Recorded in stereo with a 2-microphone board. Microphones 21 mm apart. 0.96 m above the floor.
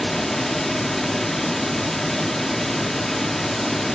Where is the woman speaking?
No woman speaking in this recording.